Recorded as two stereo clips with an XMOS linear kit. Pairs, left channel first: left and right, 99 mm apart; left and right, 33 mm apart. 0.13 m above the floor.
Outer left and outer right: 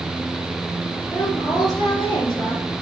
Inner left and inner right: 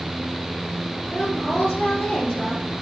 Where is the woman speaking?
45° left (ahead or behind), 3 m.